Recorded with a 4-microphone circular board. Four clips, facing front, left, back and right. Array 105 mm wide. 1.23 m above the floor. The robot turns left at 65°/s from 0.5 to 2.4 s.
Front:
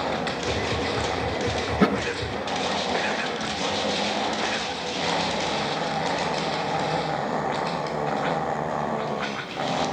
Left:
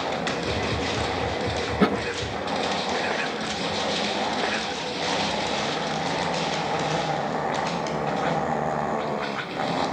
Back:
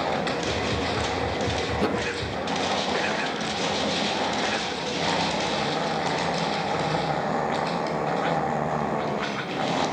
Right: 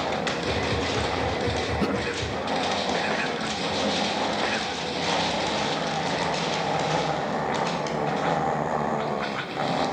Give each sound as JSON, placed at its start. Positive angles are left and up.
{"t": 1.7, "sound": "a thud", "azimuth_deg": 40, "distance_m": 5.5}